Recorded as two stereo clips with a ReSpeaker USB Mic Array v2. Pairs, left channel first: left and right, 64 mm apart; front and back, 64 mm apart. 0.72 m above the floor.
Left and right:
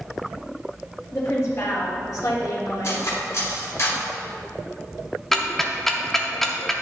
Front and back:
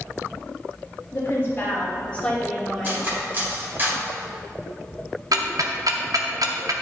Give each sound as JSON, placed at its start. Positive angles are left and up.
{"t": 1.1, "sound": "a woman speaking", "azimuth_deg": 40, "distance_m": 1.9}
{"t": 2.8, "sound": "cutlery clinking", "azimuth_deg": 125, "distance_m": 1.9}
{"t": 5.3, "sound": "ticking", "azimuth_deg": 175, "distance_m": 0.6}